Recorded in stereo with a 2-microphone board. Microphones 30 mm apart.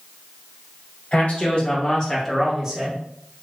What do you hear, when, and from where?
1.1 s a man speaking: 50° left (ahead or behind), 2.0 m; by 3.0 s 35° right (ahead or behind), 1.1 m